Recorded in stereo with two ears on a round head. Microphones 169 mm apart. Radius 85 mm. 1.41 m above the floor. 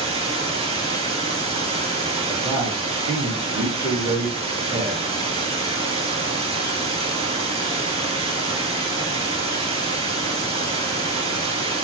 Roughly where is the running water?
Right.